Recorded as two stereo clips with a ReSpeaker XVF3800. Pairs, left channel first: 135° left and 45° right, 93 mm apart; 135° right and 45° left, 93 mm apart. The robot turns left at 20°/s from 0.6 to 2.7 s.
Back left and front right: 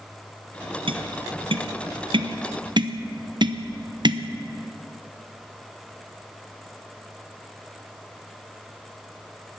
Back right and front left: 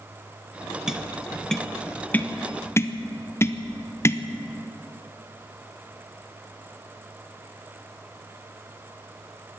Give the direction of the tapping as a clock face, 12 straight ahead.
1 o'clock.